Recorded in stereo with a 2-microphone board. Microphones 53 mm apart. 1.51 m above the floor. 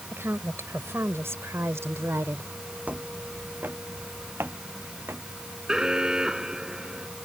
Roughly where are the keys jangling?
I don't hear keys jangling.